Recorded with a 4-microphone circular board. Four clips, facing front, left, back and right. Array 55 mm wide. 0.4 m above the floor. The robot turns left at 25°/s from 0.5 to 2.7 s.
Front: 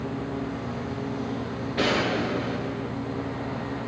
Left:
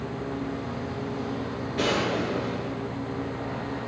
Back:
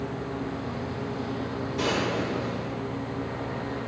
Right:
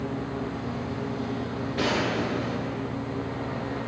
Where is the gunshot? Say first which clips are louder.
Left 1 dB, front 3 dB; 5° right, 4.5 m; by 2.9 s 30° right, 4.5 m.